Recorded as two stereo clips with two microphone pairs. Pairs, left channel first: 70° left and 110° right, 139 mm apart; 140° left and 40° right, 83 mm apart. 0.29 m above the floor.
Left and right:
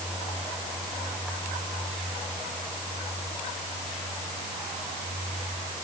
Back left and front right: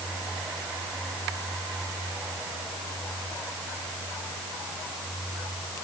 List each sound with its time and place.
Only background noise.